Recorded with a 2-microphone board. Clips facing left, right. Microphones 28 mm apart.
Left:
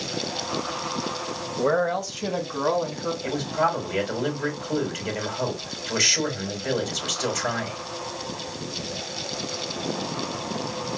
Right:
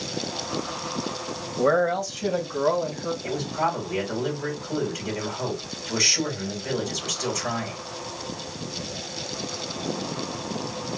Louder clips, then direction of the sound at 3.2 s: Left 2 dB; 55° left (ahead or behind).